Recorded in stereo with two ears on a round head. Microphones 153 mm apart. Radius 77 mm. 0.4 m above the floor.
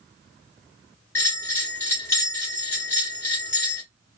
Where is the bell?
15° left (ahead or behind), 2.5 m.